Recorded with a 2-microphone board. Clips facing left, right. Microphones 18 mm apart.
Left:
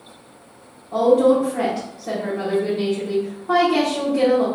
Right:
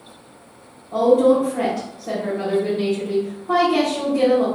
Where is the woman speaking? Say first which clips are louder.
Even; 50° left (ahead or behind), 1.2 m.